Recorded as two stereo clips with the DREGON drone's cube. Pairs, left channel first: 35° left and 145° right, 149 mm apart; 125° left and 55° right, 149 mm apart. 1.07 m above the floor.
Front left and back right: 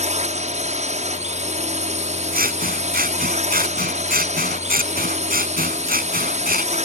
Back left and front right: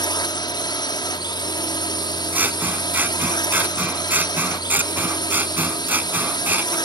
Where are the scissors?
135° right.